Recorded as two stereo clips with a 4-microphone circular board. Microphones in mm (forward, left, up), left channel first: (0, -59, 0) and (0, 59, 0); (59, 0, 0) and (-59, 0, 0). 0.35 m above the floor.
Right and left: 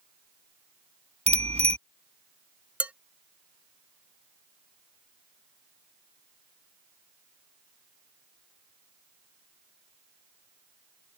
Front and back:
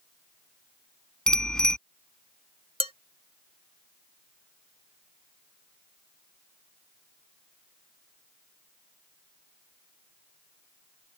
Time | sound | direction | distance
1.3 | a bicycle bell | 85° left | ?
2.8 | dishes clattering | 165° left | ?